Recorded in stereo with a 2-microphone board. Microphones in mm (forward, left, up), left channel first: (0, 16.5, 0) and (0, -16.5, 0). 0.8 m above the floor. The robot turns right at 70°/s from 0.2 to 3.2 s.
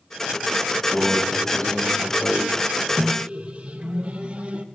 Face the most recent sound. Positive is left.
turn(degrees=-35)  # may be behind; listen again after turning